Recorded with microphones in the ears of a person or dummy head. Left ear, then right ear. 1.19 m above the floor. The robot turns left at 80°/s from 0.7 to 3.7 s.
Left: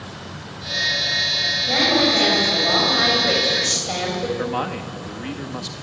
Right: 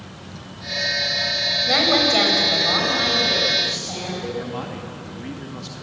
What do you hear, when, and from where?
1.7 s a woman speaking: 80° right, 5 m; by 4.3 s 115° left, 5 m
4.4 s a man speaking: 35° left (ahead or behind), 1.8 m